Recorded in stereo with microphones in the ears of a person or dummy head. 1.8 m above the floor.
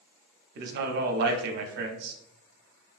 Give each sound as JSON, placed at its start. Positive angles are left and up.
{"t": 0.6, "sound": "a man speaking", "side_deg": -60, "distance_m": 0.6}